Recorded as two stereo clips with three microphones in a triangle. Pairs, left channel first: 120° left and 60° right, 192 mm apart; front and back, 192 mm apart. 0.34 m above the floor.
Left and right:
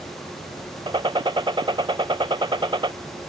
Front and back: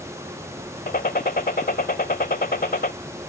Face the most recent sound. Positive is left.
turn(degrees=0)